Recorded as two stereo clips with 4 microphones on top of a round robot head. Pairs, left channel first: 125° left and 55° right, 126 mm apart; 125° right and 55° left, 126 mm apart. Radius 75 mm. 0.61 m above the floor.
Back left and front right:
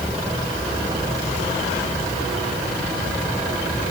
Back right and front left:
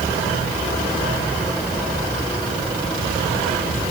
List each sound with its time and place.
Only background noise.